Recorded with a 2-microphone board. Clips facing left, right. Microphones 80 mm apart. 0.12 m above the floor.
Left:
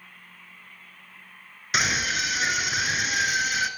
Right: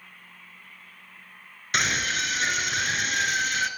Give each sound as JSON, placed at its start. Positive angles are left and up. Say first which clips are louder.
{"t": 1.7, "sound": "a scream", "louder": "left 1 dB", "side_deg": 5, "distance_m": 1.5}